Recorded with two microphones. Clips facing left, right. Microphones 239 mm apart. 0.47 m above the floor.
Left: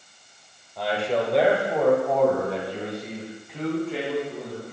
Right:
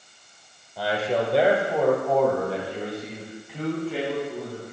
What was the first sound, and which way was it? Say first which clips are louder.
A man speaking: even; 5° right (ahead or behind).